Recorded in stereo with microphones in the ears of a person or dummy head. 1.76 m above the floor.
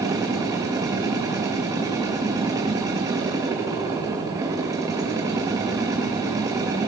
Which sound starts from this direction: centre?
A machine running, at 0.0 s.